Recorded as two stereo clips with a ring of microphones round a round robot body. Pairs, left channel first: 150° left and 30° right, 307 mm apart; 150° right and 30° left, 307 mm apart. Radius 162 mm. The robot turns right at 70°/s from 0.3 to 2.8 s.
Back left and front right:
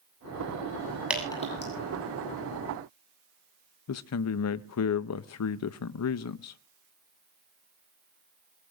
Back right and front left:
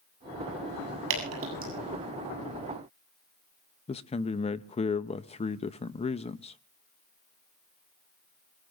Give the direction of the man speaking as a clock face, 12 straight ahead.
7 o'clock.